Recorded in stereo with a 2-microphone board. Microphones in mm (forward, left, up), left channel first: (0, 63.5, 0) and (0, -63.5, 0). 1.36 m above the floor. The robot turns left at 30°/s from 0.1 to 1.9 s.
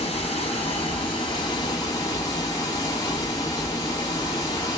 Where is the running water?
90° left, 1.1 m; by 4.8 s 35° left, 1.1 m.